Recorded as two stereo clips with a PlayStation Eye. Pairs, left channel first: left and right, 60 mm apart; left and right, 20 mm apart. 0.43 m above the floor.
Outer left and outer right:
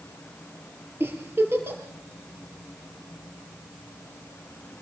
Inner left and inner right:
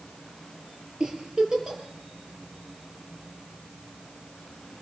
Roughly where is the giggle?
Right.